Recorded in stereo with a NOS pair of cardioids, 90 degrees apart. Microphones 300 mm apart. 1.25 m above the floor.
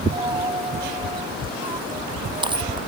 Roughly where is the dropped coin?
Ahead.